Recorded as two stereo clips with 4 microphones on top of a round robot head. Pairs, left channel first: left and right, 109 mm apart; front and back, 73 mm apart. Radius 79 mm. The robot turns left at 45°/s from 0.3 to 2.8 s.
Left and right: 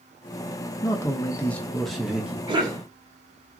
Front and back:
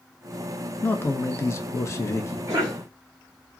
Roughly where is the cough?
Behind right.